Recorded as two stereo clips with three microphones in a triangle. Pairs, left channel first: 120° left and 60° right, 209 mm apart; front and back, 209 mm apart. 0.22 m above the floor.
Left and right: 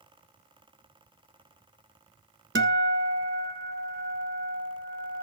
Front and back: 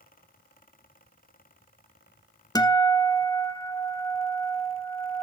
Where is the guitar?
70° right, 1.2 m.